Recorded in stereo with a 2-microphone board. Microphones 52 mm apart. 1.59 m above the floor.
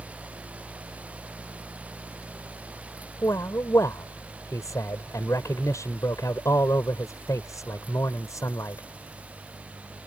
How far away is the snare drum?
I don't hear a snare drum.